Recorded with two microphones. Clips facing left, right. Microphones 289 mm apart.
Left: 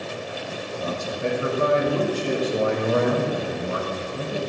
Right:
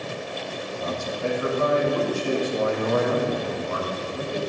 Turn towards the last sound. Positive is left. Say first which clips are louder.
# left 1 dB
turn(degrees=25)  # may be behind; listen again after turning